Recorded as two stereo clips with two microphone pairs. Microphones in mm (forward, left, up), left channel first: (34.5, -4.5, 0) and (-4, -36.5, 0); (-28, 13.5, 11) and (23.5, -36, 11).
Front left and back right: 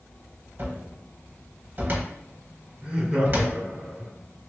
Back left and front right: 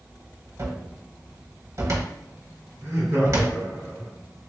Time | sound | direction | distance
0.6 | a cupboard door | 90° right | 0.8 m
2.8 | laughter | 80° right | 1.9 m